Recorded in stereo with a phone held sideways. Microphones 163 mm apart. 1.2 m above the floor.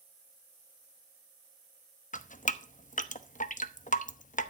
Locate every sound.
2.1 s dripping: 50° left (ahead or behind), 0.9 m